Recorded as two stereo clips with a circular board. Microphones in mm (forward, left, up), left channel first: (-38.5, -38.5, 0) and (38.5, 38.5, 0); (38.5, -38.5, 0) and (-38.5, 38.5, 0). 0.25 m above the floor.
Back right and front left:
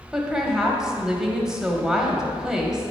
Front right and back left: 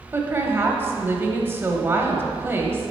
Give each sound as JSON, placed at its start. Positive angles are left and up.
{"t": 0.1, "sound": "a woman speaking", "azimuth_deg": 120, "distance_m": 1.0}